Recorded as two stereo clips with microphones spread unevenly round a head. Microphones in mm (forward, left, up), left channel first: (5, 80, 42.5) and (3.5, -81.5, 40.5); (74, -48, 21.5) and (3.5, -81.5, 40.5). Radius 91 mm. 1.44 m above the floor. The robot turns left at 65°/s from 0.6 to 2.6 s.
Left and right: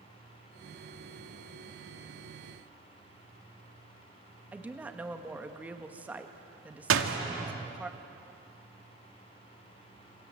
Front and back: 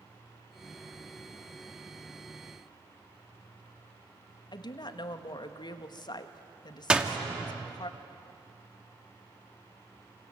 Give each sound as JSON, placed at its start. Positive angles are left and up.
{"t": 4.5, "sound": "a woman speaking", "azimuth_deg": -10, "distance_m": 1.6}
{"t": 6.9, "sound": "a door slam", "azimuth_deg": -80, "distance_m": 1.9}